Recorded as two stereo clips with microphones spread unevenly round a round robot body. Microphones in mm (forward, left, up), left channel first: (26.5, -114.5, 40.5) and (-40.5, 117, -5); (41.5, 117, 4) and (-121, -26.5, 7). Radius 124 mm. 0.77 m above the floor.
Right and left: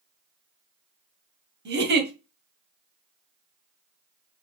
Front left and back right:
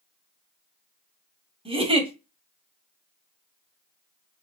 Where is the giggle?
155° left, 2 m.